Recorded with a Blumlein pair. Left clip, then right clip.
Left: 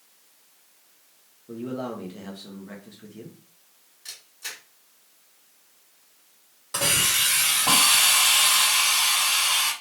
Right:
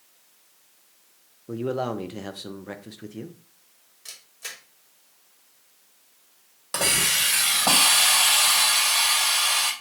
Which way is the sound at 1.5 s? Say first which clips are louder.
Right 5 dB; 25° right.